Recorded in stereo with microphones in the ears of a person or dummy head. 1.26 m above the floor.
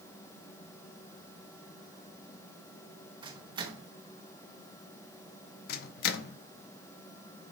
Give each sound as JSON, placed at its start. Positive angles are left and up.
{"t": 3.2, "sound": "a microwave", "side_deg": -20, "distance_m": 0.9}
{"t": 5.7, "sound": "a microwave", "side_deg": 50, "distance_m": 0.6}